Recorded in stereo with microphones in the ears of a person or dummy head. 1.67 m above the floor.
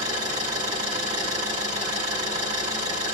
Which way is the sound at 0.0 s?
35° right (ahead or behind).